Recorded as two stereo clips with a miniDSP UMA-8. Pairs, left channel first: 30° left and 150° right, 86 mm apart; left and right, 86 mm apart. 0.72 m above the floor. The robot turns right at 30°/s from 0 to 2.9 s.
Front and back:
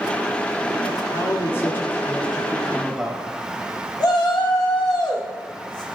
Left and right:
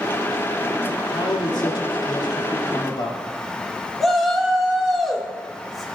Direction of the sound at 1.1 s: 70° left.